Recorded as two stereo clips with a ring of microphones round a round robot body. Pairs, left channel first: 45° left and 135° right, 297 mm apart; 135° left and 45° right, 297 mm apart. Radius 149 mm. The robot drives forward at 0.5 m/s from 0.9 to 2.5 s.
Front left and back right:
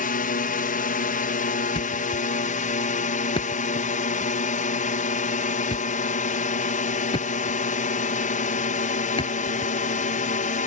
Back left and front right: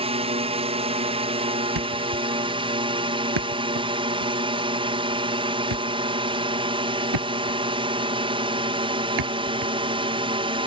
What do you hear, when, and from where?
0.0 s a drone: 10° left
1.8 s a thud: 30° right